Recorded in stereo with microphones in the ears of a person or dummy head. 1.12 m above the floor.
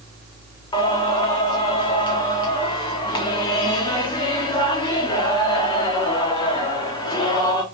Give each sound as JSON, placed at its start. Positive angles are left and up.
{"t": 0.7, "sound": "singing", "side_deg": 30, "distance_m": 1.4}